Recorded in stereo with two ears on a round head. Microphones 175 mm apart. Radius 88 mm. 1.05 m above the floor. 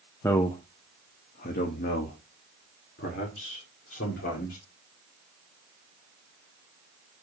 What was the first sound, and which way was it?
A man speaking, 10° left (ahead or behind).